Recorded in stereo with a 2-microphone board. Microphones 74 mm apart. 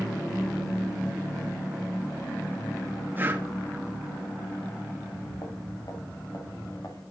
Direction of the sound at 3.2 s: 25° right (ahead or behind).